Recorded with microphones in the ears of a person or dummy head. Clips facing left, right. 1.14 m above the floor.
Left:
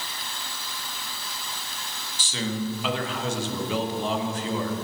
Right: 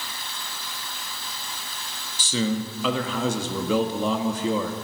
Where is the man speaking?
85° right, 1.5 m.